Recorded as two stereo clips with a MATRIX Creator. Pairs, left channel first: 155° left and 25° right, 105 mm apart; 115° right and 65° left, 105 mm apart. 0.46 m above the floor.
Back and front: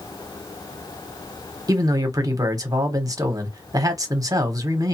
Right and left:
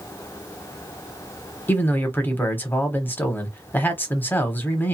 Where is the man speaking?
50° right, 0.9 m.